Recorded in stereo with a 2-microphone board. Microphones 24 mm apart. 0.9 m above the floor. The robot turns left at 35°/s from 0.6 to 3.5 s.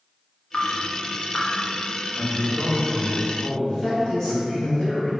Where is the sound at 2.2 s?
55° left, 0.9 m; by 4.7 s 10° left, 0.9 m.